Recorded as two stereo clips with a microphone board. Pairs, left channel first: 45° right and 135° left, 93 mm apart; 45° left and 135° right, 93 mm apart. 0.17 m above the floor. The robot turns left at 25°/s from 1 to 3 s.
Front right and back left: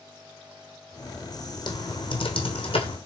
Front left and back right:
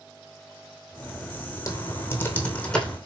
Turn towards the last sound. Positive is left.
turn(degrees=-45)